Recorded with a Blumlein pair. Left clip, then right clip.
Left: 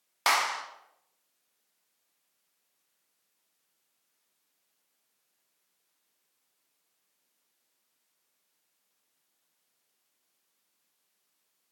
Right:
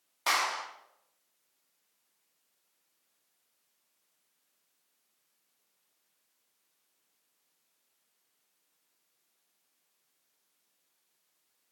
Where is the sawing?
I don't hear sawing.